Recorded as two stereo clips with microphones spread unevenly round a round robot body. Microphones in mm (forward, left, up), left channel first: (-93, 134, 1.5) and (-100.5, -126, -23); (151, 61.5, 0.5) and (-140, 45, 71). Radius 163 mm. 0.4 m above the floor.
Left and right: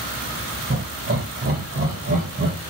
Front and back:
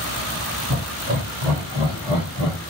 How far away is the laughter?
About 1.9 m.